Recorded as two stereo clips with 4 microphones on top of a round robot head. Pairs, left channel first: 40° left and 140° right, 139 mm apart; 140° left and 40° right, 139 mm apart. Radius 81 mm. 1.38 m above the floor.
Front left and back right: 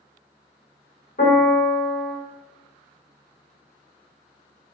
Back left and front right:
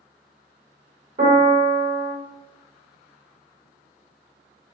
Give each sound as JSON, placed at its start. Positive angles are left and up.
{"t": 1.2, "sound": "a piano", "azimuth_deg": 5, "distance_m": 1.1}